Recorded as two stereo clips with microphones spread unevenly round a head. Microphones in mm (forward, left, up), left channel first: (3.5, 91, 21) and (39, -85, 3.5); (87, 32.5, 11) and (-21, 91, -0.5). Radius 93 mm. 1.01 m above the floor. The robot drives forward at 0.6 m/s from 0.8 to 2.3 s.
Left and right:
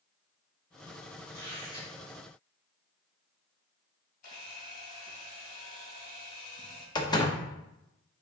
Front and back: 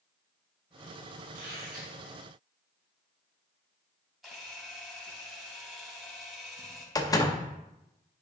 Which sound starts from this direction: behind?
A squeak, at 1.3 s.